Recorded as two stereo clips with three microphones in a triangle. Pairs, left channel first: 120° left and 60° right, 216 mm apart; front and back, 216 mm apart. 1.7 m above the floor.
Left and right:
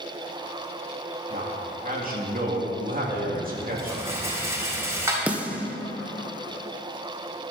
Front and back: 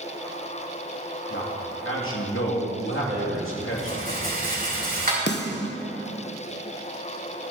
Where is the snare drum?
25° left, 1.0 m.